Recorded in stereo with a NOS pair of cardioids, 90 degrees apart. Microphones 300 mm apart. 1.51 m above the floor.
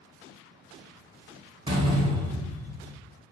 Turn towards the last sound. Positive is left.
turn(degrees=-15)